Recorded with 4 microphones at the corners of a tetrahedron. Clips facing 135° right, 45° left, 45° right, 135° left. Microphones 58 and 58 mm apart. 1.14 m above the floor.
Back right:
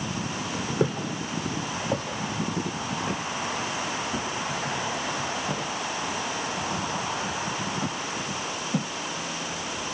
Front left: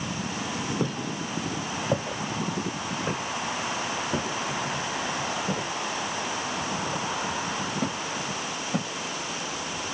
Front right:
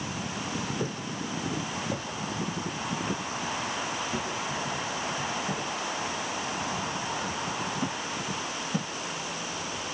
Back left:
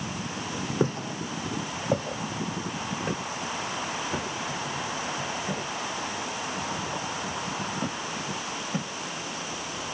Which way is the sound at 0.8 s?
145° left.